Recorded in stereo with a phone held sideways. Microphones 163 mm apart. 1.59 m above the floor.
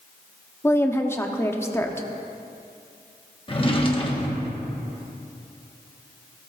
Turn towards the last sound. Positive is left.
turn(degrees=35)  # may be behind; listen again after turning